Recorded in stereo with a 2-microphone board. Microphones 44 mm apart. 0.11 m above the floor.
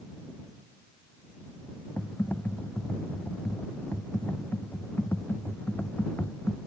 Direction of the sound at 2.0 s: 45° left (ahead or behind).